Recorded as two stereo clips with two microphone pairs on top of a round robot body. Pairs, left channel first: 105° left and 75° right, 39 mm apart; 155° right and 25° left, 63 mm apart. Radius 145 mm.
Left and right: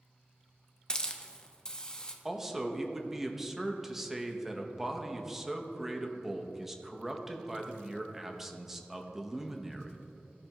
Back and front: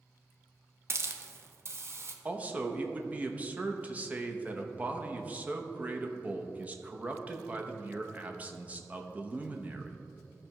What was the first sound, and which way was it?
A hiss, 45° left.